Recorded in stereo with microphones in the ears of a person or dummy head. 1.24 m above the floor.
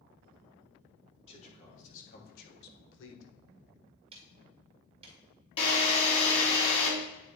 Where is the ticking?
30° right (ahead or behind), 1.7 m.